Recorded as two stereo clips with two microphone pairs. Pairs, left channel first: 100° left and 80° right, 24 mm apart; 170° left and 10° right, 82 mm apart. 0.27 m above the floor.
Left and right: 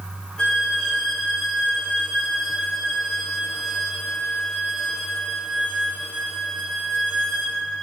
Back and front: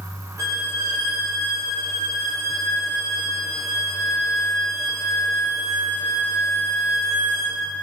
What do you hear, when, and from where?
0.4 s a violin: 40° left, 4 m